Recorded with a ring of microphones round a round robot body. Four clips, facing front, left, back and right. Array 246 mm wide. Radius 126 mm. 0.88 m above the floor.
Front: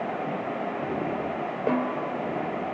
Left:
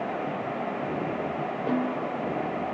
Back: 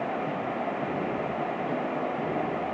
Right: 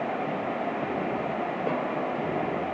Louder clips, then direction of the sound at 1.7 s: Left 3 dB, front 3 dB; 10° right.